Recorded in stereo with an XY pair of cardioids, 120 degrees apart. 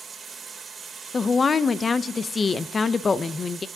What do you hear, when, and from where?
0.0 s running water: 25° right, 1.9 m
1.1 s a woman speaking: 30° left, 0.6 m